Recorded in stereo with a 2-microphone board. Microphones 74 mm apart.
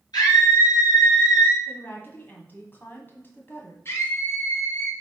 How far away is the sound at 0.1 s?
About 3 m.